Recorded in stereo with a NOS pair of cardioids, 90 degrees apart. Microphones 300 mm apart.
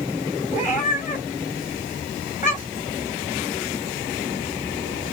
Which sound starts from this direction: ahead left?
A cat meowing, at 0.5 s.